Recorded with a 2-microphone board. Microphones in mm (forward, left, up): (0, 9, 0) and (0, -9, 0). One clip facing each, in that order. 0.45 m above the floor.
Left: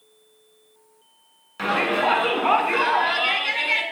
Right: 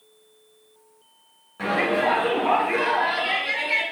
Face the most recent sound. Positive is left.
turn(degrees=75)  # may be behind; listen again after turning